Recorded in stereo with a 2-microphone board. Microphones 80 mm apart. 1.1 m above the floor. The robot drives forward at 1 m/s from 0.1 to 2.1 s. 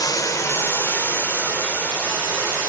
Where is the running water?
50° left (ahead or behind), 0.8 m; by 2.7 s 15° left (ahead or behind), 2.5 m.